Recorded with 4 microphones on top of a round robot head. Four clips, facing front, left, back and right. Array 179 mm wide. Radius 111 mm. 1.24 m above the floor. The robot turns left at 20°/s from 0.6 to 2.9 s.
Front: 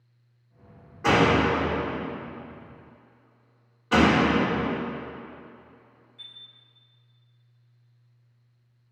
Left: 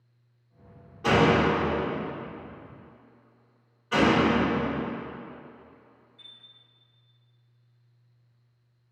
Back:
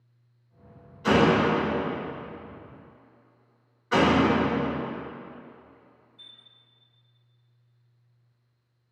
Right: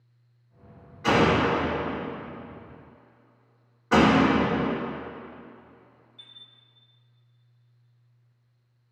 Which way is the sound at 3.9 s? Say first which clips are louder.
Right 3 dB, front 1 dB; 65° right.